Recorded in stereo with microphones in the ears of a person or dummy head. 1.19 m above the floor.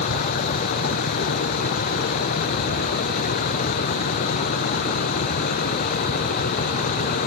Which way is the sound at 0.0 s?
45° left (ahead or behind).